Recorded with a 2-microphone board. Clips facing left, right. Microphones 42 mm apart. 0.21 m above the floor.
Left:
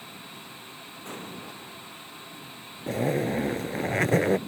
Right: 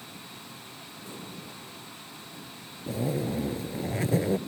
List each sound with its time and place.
1.1 s an explosion: 60° left (ahead or behind)
2.9 s a zipper: 65° left (ahead or behind)